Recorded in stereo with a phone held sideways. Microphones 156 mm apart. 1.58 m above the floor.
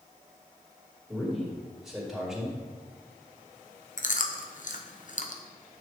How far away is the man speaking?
About 3 m.